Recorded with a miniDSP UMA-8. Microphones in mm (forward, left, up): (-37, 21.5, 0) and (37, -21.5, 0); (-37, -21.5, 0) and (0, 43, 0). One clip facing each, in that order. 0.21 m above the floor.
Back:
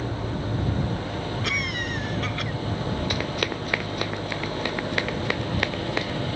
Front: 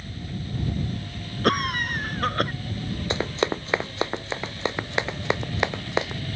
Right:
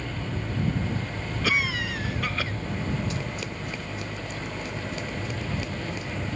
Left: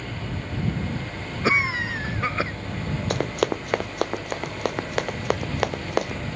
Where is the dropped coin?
I don't hear a dropped coin.